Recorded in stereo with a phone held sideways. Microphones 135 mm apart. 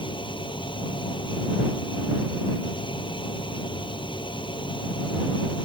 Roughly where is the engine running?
Left.